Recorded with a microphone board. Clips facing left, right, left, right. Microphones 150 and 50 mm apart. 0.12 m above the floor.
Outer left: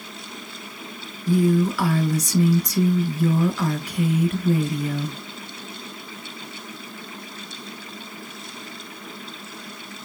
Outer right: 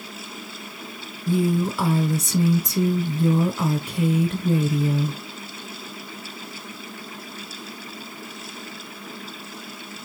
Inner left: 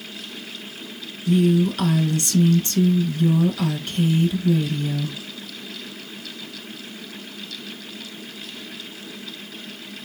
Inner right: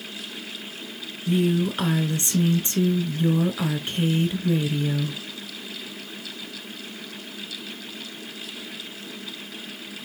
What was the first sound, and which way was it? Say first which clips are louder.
A woman speaking: outer left 3 dB, inner left 4 dB; 25° right (ahead or behind).